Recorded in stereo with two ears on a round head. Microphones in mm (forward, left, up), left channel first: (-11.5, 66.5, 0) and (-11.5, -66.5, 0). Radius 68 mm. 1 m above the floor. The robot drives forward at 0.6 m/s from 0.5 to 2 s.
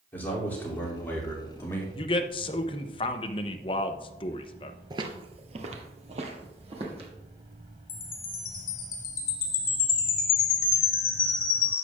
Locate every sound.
0.1 s a man speaking: 10° left (ahead or behind), 2.5 m; by 1.9 s 15° left (ahead or behind), 1.9 m
1.9 s a man speaking: 30° left (ahead or behind), 0.7 m; by 4.8 s 35° left (ahead or behind), 0.7 m
4.9 s footsteps: 30° right (ahead or behind), 1.1 m; by 7.1 s 40° right (ahead or behind), 3 m
7.9 s a chime: 70° left (ahead or behind), 1.5 m